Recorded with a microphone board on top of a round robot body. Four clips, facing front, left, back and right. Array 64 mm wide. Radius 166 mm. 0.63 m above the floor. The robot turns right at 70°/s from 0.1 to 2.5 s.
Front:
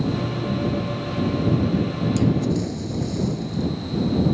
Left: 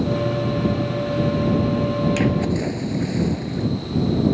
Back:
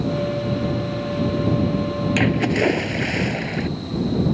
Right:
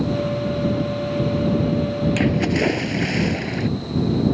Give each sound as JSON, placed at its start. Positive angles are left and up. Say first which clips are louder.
{"t": 2.2, "sound": "a splash", "louder": "right 1 dB, back 3 dB", "azimuth_deg": -175}